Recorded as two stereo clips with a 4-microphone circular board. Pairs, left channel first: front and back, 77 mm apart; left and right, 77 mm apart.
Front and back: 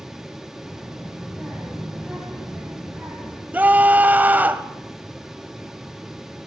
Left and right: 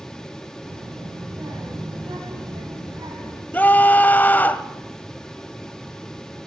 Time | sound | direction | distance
0.7 | a child speaking | 85° right | 7 m
3.5 | a scream | 135° left | 1.0 m